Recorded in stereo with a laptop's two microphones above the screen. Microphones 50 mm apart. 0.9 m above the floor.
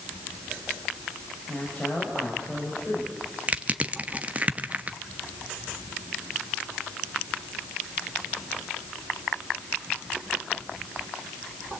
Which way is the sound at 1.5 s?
20° left (ahead or behind).